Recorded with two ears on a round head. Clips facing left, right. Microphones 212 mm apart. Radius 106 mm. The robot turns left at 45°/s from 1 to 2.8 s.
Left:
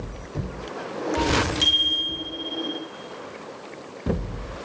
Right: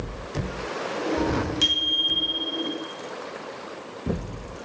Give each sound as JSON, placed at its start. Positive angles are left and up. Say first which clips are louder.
{"t": 1.6, "sound": "a bicycle bell", "louder": "right 1 dB", "azimuth_deg": -5, "distance_m": 3.0}